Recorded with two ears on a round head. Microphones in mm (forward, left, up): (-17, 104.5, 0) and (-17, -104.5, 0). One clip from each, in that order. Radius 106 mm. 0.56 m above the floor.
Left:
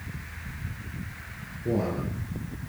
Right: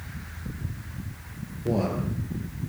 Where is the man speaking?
40° right (ahead or behind), 9.5 m.